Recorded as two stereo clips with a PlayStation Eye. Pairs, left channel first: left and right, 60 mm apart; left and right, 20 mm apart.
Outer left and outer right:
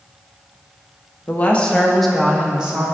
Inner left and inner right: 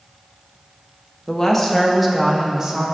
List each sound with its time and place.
1.3 s a woman speaking: 30° left (ahead or behind), 0.9 m; by 2.9 s 20° right (ahead or behind), 1.3 m